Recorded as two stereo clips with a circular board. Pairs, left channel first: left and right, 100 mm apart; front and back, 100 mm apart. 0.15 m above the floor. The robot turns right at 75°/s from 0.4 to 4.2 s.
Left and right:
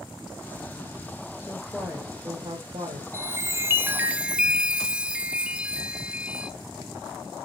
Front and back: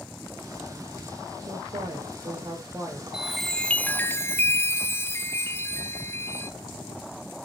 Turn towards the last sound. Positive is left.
turn(degrees=-25)